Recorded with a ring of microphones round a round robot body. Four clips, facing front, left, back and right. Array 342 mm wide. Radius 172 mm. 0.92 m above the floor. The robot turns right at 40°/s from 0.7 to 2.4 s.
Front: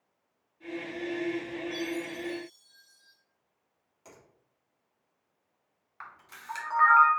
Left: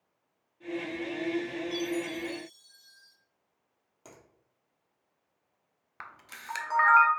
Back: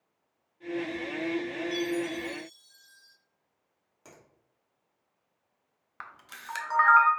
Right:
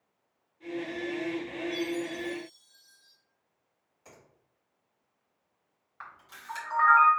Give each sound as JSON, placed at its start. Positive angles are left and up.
{"t": 1.7, "sound": "a chime", "azimuth_deg": 115, "distance_m": 0.7}
{"t": 4.0, "sound": "a finger snap", "azimuth_deg": 110, "distance_m": 1.3}
{"t": 6.0, "sound": "a camera shutter", "azimuth_deg": 125, "distance_m": 0.6}